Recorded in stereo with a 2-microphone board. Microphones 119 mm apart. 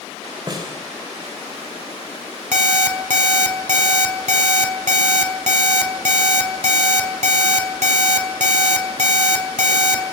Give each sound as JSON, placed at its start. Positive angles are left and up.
{"t": 0.5, "sound": "a snare drum", "side_deg": -35, "distance_m": 6.0}
{"t": 2.5, "sound": "an alarm clock", "side_deg": -80, "distance_m": 3.5}